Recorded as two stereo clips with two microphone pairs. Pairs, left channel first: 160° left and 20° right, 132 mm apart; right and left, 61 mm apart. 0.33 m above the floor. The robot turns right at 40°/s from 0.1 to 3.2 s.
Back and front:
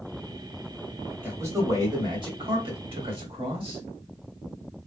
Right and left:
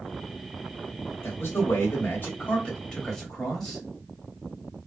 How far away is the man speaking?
About 1.8 m.